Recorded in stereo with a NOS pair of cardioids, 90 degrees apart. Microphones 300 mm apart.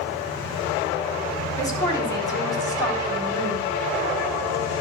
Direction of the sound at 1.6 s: 10° left.